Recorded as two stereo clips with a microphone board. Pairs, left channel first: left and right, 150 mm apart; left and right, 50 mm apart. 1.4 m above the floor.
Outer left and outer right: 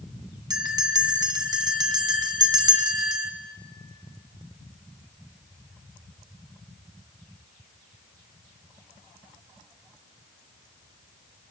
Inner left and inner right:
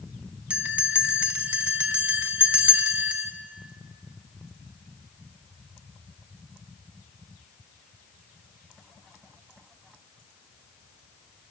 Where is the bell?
25° right (ahead or behind), 1.5 m.